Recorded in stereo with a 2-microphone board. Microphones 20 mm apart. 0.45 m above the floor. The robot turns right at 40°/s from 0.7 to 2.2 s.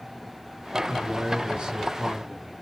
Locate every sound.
0.9 s a man speaking: 85° right, 1.4 m; by 2.5 s 35° right, 1.4 m